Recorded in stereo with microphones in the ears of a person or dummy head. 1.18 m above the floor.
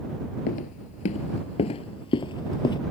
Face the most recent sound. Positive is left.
turn(degrees=20)  # may be behind; listen again after turning